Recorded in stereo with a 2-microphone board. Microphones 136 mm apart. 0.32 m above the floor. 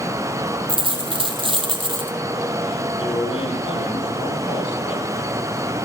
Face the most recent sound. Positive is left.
turn(degrees=40)  # may be behind; listen again after turning